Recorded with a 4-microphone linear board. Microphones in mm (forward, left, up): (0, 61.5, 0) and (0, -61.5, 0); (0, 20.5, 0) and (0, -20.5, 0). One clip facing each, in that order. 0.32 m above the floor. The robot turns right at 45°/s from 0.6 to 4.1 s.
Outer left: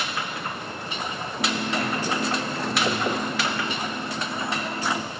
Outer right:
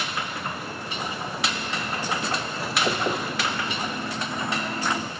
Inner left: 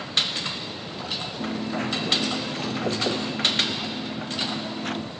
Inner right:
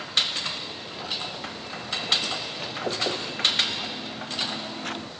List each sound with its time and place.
1.4 s a dropped coin: 55° left; by 5.1 s 175° left